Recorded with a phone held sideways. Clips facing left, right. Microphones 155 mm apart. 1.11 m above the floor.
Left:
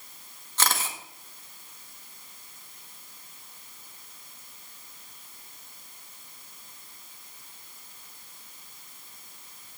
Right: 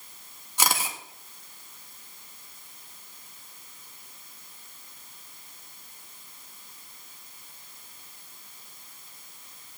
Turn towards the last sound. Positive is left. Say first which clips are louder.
# right 1 dB
turn(degrees=-10)  # may be behind; listen again after turning